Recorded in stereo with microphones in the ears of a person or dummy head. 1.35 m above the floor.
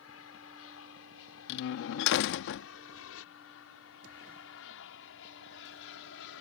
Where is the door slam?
60° left (ahead or behind).